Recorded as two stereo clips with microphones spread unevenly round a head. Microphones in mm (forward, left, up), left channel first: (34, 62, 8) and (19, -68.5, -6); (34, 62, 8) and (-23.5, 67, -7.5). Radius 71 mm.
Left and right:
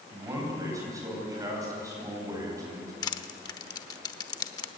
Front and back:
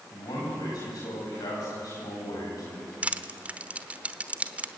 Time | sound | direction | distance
0.1 | a man speaking | 30° right | 9 m
3.0 | crushing | 100° left | 1.0 m